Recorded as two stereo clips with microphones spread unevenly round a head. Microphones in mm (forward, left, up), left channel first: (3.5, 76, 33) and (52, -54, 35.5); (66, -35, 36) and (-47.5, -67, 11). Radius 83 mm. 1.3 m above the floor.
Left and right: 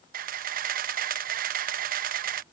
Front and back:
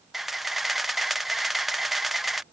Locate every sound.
0.1 s a camera shutter: 80° right